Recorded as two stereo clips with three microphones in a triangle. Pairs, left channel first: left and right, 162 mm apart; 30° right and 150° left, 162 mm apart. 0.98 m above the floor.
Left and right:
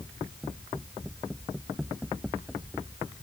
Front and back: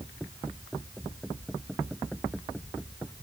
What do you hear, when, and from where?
Only background noise.